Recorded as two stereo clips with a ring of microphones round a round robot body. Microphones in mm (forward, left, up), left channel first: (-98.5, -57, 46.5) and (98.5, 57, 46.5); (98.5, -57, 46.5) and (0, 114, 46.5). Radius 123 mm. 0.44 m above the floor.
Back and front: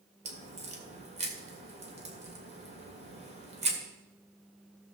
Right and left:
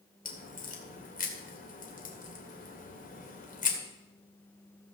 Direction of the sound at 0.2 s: 25° right.